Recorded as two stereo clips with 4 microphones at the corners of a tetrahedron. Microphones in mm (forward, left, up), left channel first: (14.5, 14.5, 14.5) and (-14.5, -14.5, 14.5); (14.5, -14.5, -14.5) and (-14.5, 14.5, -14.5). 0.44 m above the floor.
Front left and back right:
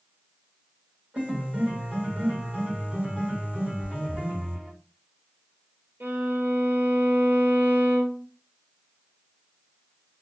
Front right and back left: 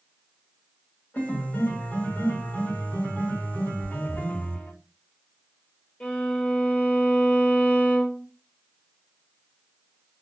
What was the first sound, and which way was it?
A piano, 80° right.